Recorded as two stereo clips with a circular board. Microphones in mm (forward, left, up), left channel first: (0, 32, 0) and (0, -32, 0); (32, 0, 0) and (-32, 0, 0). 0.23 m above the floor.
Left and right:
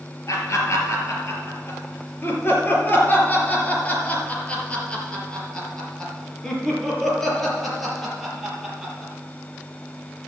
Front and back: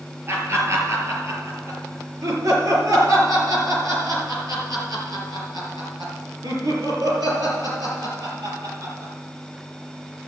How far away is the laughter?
About 4.5 m.